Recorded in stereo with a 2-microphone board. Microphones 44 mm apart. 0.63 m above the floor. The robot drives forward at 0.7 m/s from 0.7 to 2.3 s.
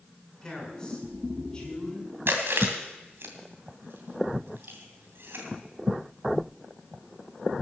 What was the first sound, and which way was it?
A man speaking, 15° left (ahead or behind).